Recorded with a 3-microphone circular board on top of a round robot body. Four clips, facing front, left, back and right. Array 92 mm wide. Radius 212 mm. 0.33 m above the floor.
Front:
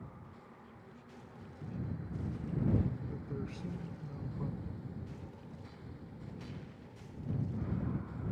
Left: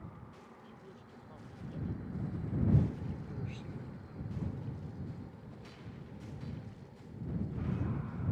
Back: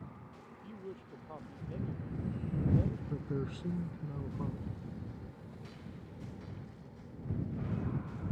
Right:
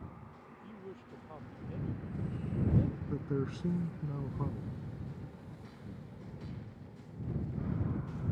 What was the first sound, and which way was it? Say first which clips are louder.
A woman speaking: right 5 dB, back 8 dB; 160° right.